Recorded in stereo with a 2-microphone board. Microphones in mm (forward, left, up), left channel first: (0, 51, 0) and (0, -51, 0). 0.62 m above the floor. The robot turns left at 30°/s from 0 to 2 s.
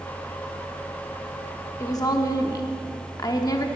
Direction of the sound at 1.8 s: 30° left (ahead or behind).